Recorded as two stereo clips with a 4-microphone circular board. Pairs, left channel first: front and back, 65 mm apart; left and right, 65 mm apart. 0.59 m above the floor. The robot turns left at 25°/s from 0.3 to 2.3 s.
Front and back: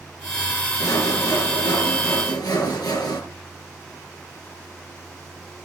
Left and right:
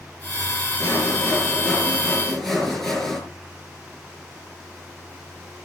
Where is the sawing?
45° left, 5.5 m; by 3.2 s 5° left, 5.5 m.